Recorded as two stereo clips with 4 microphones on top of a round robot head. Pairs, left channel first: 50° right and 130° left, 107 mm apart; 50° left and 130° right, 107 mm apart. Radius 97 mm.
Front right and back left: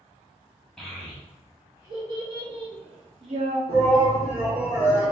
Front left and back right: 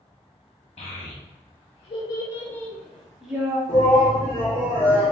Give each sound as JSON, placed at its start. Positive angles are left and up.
{"t": 0.8, "sound": "a child speaking", "azimuth_deg": 35, "distance_m": 0.9}
{"t": 3.7, "sound": "a shout", "azimuth_deg": 115, "distance_m": 1.2}